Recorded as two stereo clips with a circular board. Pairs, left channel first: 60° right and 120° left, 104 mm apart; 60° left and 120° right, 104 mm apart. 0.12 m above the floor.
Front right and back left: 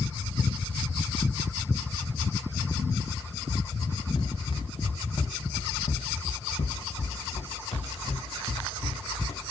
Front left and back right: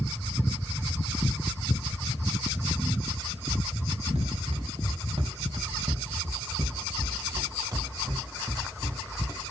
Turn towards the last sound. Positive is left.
turn(degrees=-55)